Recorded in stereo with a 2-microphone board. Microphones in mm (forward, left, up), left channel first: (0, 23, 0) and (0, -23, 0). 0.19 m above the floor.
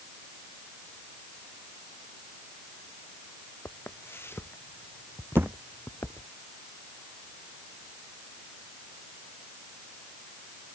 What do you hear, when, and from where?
3.6 s footsteps: 60° left (ahead or behind); by 6.3 s 70° left (ahead or behind)
5.4 s a thud: 60° right (ahead or behind)